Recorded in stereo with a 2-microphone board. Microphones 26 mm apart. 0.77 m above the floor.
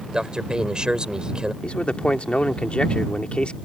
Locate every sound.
0.1 s a man speaking: 30° right (ahead or behind)
1.6 s a man speaking: 55° left (ahead or behind)